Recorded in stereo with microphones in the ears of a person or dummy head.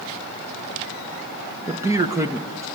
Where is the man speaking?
15° right (ahead or behind), 1.2 m.